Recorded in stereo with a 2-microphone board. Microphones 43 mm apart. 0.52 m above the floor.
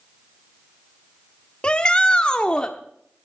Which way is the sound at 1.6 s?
20° left (ahead or behind).